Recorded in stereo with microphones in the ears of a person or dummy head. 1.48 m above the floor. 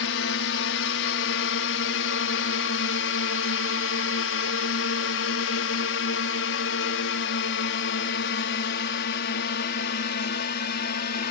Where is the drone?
70° left (ahead or behind); by 11.3 s 50° left (ahead or behind).